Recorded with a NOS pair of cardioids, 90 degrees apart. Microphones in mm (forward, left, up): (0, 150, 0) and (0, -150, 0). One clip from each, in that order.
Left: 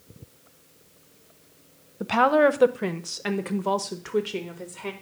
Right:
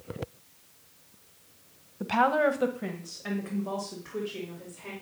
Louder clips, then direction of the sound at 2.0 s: Left 5 dB; 15° left.